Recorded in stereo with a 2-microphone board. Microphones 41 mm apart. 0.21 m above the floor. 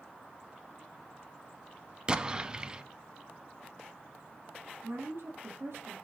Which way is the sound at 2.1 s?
20° right (ahead or behind).